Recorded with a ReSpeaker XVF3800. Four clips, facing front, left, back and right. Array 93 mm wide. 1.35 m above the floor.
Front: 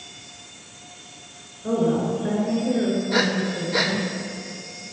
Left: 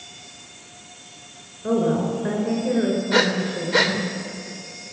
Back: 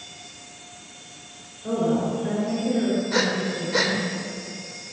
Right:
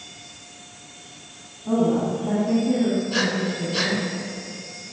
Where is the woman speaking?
85° left, 5.5 m.